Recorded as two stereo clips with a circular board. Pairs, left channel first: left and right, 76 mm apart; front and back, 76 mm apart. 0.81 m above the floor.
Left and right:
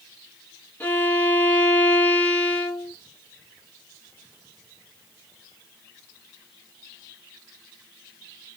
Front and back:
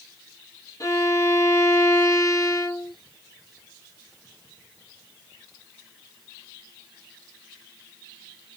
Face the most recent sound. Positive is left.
turn(degrees=30)